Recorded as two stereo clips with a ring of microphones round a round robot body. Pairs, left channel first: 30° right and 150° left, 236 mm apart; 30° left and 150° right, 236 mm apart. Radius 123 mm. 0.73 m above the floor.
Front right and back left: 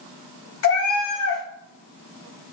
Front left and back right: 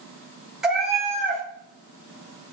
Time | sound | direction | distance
0.6 | a cat meowing | 65° right | 0.8 m